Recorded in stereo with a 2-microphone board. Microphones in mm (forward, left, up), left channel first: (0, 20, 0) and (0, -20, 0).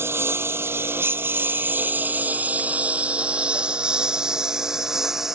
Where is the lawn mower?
85° right; by 5.4 s 10° right (ahead or behind).